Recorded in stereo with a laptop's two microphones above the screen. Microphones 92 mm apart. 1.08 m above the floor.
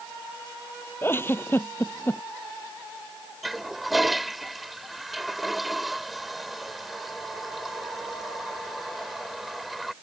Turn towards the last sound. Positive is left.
turn(degrees=0)  # may be behind; listen again after turning